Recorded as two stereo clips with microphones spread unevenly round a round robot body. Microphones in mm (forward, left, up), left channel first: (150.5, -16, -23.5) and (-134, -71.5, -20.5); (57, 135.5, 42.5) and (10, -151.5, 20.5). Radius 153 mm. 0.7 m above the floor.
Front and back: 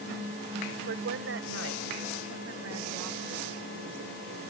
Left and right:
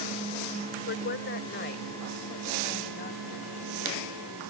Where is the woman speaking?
135° left; by 4.5 s 145° left.